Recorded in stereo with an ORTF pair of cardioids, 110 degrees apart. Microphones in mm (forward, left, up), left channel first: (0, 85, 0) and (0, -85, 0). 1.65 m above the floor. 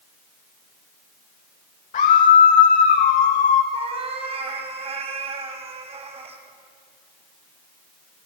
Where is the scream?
40° left, 2.5 m.